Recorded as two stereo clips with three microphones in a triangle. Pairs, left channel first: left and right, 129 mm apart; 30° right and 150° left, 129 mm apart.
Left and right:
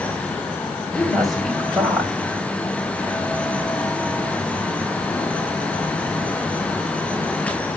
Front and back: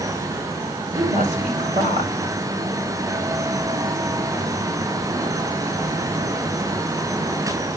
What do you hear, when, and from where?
0.9 s a woman speaking: straight behind, 4 m